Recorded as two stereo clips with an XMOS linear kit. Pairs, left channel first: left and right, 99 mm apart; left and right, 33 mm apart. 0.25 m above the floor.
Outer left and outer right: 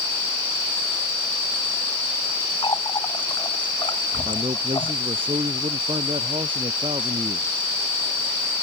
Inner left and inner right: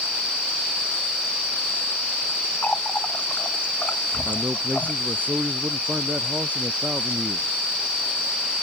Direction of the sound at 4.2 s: 60° right (ahead or behind).